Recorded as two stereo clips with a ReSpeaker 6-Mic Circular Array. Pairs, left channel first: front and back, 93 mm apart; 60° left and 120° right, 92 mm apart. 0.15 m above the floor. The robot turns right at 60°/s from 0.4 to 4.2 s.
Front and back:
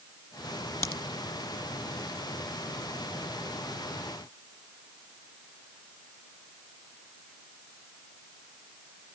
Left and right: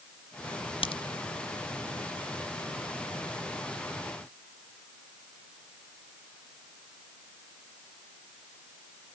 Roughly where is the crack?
Ahead left.